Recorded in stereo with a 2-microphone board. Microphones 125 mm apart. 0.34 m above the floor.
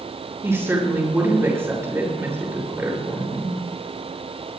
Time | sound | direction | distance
0.4 | a woman speaking | 20° right (ahead or behind) | 6 m